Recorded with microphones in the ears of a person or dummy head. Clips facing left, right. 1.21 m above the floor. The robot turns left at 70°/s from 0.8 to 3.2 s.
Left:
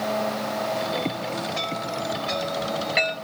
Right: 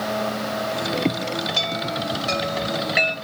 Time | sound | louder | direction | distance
1.6 | a chime | right 2 dB | 60° right (ahead or behind) | 1.1 m